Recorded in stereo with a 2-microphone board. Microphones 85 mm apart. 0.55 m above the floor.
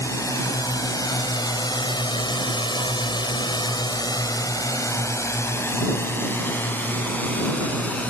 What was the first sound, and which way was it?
A drone, 40° left (ahead or behind).